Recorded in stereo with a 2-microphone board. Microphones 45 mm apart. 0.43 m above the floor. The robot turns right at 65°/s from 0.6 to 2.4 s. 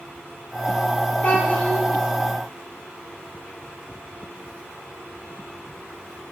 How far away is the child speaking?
About 0.7 m.